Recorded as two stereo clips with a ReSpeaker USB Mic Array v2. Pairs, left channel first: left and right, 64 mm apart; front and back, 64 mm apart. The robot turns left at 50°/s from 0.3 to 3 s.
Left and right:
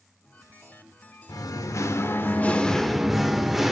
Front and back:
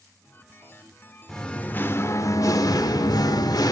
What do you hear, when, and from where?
1.3 s singing: 80° left, 0.7 m; by 3.7 s 5° right, 0.7 m